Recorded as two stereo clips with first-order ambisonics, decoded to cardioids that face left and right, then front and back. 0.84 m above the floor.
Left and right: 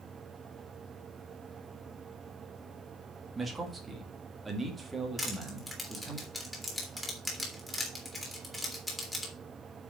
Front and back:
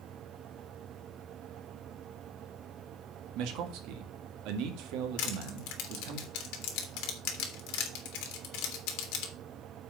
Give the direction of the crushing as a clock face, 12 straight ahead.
12 o'clock.